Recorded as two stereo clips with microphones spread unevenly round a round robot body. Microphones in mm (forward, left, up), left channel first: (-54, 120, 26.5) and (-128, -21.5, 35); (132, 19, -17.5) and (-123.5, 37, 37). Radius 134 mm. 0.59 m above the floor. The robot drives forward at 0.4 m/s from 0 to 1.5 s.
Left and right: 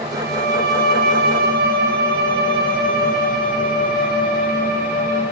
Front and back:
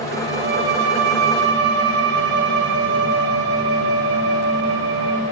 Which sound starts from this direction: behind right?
A violin, at 0.1 s.